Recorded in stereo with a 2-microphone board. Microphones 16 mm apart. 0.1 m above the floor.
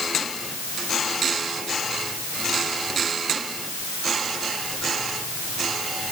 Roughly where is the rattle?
No rattle in this recording.